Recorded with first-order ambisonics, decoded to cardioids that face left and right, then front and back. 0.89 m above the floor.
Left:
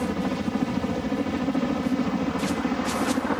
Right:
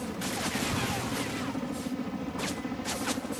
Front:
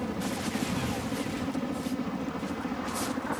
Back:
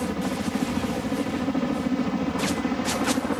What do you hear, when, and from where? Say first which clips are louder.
0.0 s a helicopter: left 5 dB, back 5 dB; 125° left; by 3.4 s 135° left